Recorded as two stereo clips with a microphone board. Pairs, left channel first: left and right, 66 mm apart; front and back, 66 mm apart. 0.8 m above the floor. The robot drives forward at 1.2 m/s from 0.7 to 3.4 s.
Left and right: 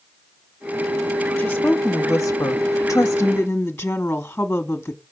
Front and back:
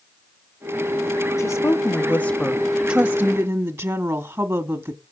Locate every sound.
1.4 s a woman speaking: 20° left, 1.6 m; by 5.0 s 150° left, 1.2 m